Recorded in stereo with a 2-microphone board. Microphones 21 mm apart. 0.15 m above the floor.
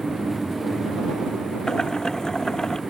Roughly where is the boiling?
Left.